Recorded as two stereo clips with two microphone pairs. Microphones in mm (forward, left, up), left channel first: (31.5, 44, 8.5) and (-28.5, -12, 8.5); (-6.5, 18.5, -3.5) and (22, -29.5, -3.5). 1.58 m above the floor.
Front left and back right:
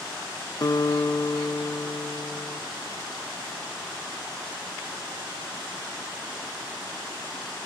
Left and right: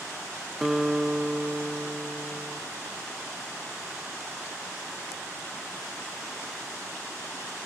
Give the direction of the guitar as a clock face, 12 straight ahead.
11 o'clock.